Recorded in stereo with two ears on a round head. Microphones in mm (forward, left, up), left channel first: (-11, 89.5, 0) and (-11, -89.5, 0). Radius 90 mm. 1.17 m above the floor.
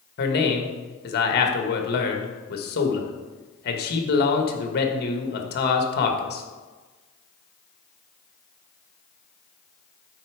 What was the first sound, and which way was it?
A man speaking, 55° left (ahead or behind).